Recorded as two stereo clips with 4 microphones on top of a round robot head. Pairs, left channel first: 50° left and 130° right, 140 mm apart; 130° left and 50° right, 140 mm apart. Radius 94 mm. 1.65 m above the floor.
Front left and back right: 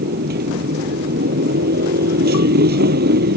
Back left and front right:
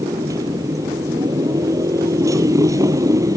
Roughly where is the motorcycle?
Behind right.